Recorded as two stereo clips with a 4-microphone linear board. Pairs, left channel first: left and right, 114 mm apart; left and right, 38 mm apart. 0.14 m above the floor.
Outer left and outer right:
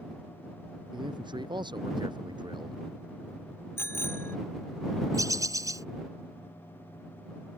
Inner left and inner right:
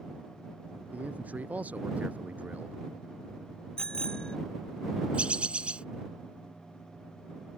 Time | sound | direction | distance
0.9 | a man speaking | 40° right (ahead or behind) | ?
3.8 | a bicycle bell | 20° left (ahead or behind) | ?
5.1 | a bird | 30° right (ahead or behind) | ?